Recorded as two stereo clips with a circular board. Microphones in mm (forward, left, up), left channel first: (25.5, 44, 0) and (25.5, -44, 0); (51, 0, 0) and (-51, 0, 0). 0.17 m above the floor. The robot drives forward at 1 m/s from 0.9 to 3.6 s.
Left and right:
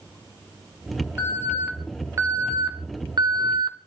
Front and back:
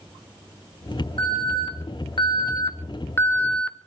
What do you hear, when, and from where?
1.2 s an alarm: 25° right, 3 m; by 3.8 s 80° right, 1.4 m